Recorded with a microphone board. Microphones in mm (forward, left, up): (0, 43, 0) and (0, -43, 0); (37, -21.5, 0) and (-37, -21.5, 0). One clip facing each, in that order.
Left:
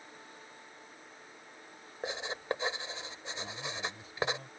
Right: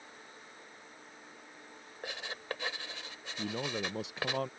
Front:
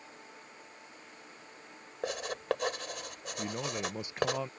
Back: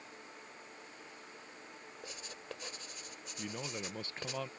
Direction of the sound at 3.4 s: 75° right.